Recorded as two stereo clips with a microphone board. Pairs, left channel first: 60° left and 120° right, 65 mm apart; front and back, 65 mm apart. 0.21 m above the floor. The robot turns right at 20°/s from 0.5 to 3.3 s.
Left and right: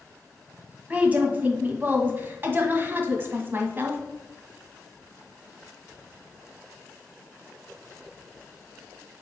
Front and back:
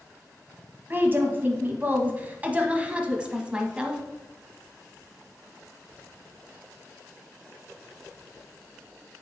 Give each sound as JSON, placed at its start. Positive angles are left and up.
{"t": 0.9, "sound": "a woman speaking", "azimuth_deg": -165, "distance_m": 1.3}